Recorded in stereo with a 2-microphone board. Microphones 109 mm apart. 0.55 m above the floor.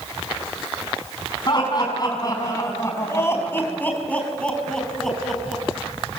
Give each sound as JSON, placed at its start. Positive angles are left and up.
{"t": 1.5, "sound": "laughter", "side_deg": 40, "distance_m": 5.0}